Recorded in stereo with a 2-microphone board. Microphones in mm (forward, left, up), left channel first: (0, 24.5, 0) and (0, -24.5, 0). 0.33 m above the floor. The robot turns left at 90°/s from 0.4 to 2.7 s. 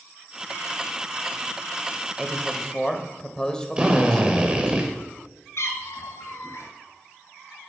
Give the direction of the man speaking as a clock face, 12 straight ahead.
5 o'clock.